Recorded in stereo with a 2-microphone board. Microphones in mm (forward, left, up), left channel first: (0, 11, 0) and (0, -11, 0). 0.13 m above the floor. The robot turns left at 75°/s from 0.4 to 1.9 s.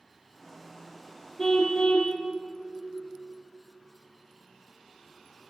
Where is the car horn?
155° left, 2.5 m; by 2.2 s 115° left, 2.5 m.